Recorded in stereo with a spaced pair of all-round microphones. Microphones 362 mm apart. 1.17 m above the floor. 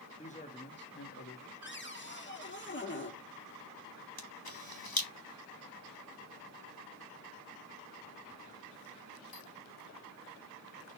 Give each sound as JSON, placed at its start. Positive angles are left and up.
{"t": 0.2, "sound": "a man speaking", "side_deg": 20, "distance_m": 1.5}
{"t": 1.6, "sound": "a cupboard door", "side_deg": 30, "distance_m": 1.7}
{"t": 4.2, "sound": "a camera shutter", "side_deg": 75, "distance_m": 1.8}